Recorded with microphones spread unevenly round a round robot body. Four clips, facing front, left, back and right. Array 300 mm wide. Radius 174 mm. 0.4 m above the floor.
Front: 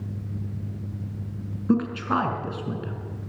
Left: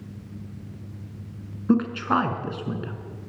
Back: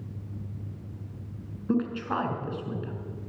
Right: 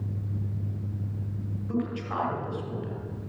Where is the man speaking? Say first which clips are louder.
Left 9 dB, front 4 dB; 60° left, 5.5 m.